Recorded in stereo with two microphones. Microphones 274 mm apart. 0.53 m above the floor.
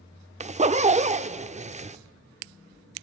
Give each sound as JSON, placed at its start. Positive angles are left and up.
{"t": 0.4, "sound": "a zipper", "side_deg": -25, "distance_m": 0.6}